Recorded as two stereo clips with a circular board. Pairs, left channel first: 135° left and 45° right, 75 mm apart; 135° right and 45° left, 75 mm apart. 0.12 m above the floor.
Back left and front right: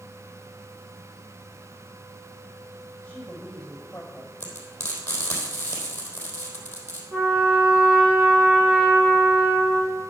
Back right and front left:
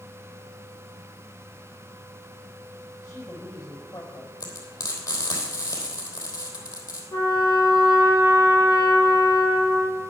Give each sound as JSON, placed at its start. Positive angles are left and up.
{"t": 3.0, "sound": "a woman speaking", "azimuth_deg": -155, "distance_m": 5.0}
{"t": 4.4, "sound": "frying", "azimuth_deg": -160, "distance_m": 3.0}
{"t": 7.1, "sound": "a trumpet", "azimuth_deg": -115, "distance_m": 4.0}